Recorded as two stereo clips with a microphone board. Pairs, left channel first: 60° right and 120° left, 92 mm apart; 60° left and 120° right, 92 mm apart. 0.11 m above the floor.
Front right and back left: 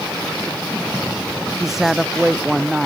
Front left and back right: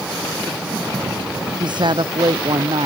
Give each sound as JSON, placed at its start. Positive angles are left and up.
{"t": 1.6, "sound": "a woman speaking", "azimuth_deg": -155}